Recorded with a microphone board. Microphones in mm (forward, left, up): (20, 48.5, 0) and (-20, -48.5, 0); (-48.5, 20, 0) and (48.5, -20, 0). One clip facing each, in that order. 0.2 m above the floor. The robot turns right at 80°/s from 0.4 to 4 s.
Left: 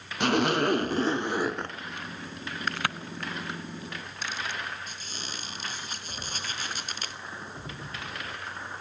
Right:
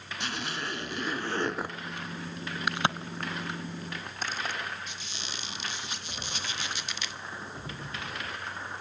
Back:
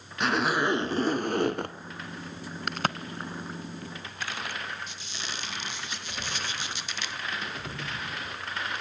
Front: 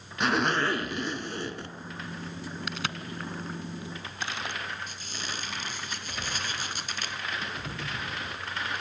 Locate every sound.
0.2 s a zipper: 65° left, 1.0 m; by 1.8 s 175° left, 1.0 m
2.7 s a crack: 175° left, 0.7 m; by 4.5 s 80° right, 0.7 m
4.9 s a squeak: 20° left, 1.8 m